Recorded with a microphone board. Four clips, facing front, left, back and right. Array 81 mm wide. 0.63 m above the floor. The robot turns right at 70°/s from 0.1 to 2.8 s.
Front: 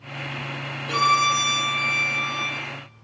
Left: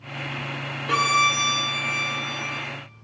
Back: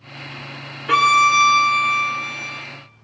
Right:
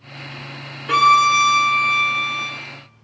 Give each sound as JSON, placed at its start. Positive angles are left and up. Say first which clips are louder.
{"t": 0.9, "sound": "a violin", "louder": "right 8 dB, back 6 dB", "azimuth_deg": -165, "distance_m": 2.0}